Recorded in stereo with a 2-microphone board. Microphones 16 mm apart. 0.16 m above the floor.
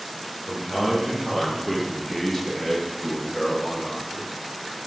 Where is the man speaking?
15° right (ahead or behind), 4 m; by 4.3 s 25° left (ahead or behind), 3.5 m.